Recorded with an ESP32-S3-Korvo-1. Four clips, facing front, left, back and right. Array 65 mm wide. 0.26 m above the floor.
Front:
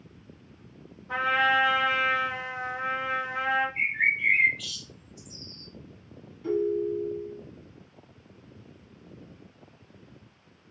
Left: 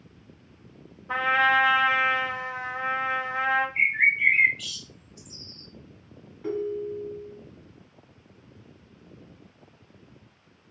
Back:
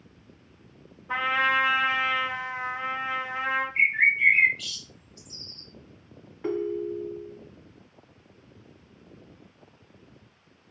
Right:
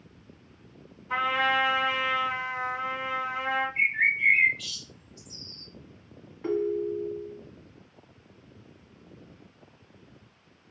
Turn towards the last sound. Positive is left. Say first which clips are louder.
# right 2 dB, front 2 dB
turn(degrees=-160)